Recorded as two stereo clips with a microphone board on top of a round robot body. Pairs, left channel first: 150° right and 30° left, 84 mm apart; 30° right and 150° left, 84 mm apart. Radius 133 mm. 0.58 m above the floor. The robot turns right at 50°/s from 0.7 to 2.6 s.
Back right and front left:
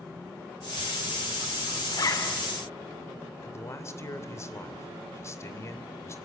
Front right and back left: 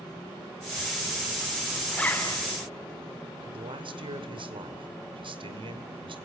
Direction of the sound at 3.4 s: 155° left.